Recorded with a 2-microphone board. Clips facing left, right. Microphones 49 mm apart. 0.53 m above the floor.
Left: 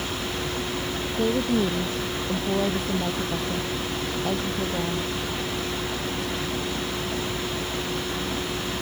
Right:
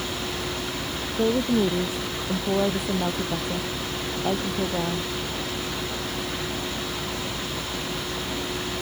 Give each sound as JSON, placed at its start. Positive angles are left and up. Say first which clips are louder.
{"t": 1.2, "sound": "a woman speaking", "louder": "right 2 dB", "side_deg": -10}